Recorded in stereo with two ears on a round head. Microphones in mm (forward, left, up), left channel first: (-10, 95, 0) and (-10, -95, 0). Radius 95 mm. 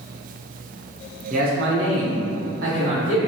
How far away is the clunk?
No clunk in this recording.